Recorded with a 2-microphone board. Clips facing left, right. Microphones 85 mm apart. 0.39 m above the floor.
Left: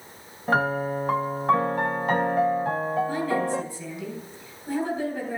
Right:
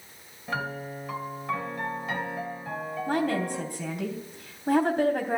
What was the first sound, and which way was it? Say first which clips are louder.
A piano: left 9 dB; 50° left (ahead or behind).